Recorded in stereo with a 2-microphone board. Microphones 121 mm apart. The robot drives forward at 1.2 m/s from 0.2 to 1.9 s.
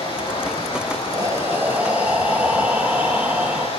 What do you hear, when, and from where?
0.0 s running water: 70° left (ahead or behind), 9 m; by 3.8 s 85° left, 8.5 m
1.1 s breathing: 25° right (ahead or behind), 0.6 m; by 3.7 s 15° right (ahead or behind), 1.3 m